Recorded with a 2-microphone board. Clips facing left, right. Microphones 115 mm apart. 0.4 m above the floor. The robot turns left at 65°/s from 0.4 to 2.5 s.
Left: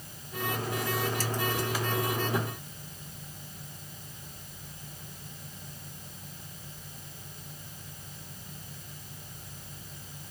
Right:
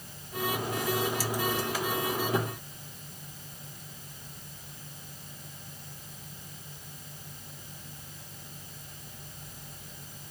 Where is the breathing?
No breathing in this recording.